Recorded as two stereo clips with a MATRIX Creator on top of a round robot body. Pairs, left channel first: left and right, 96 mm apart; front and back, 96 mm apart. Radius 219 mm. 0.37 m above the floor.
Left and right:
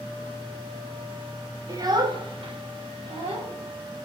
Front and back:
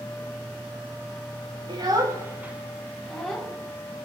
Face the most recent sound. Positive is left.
turn(degrees=-85)